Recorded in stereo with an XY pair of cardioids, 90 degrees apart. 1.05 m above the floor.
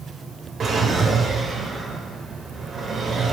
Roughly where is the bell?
I don't hear a bell.